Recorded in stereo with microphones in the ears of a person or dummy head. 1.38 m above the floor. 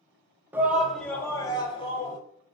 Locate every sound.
0.5 s a shout: 5° right (ahead or behind), 1.0 m; by 2.2 s 45° left (ahead or behind), 1.1 m